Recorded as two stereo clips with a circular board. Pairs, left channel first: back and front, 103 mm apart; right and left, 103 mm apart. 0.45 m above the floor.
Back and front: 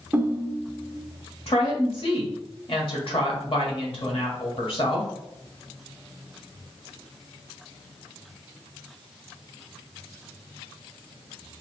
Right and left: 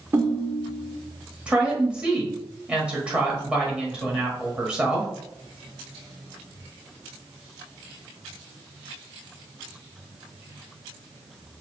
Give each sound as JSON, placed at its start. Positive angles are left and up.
{"t": 0.1, "sound": "a ringtone", "azimuth_deg": 55, "distance_m": 0.6}
{"t": 1.5, "sound": "a woman speaking", "azimuth_deg": 170, "distance_m": 1.6}